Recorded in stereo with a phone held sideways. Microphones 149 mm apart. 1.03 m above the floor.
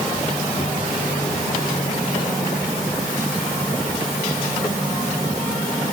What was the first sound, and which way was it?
Only background noise.